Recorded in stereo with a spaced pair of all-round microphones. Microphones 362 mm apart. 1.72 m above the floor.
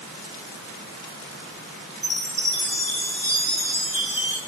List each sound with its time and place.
2.0 s a chime: 55° left (ahead or behind), 2.5 m